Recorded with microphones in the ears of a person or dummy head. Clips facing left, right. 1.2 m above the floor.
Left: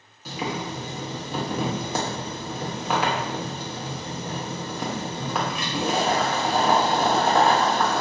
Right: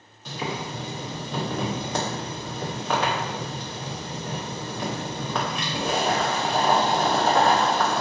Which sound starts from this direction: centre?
Boiling, at 0.2 s.